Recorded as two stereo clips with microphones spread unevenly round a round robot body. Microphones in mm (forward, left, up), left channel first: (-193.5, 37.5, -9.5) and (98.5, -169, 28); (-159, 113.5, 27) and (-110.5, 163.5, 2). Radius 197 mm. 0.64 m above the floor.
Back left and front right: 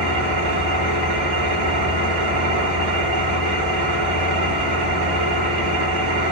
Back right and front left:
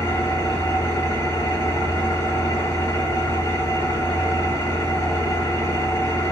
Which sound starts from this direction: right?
An engine running, at 0.0 s.